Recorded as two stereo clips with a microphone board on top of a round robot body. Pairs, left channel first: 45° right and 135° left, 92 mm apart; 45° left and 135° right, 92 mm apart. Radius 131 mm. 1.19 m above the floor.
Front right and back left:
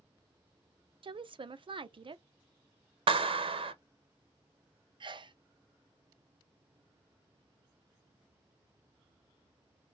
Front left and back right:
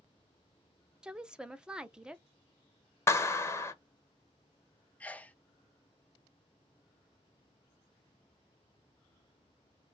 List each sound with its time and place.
1.0 s a woman speaking: 145° left, 0.6 m
3.1 s a clap: 110° left, 0.6 m
5.0 s a sneeze: 120° left, 0.6 m